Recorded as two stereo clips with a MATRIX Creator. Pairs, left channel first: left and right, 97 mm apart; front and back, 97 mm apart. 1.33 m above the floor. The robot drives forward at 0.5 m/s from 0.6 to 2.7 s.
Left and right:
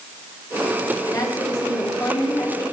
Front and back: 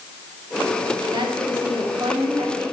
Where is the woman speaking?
140° left, 3 m; by 2.6 s 145° left, 4 m.